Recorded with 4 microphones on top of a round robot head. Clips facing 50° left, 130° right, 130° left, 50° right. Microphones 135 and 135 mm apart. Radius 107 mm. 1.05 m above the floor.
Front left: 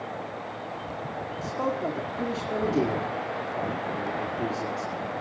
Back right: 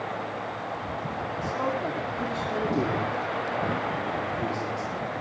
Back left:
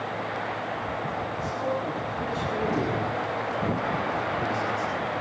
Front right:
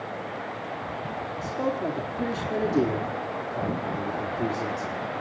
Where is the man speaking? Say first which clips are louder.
Front left 1 dB, front right 3 dB; 25° right, 2 m.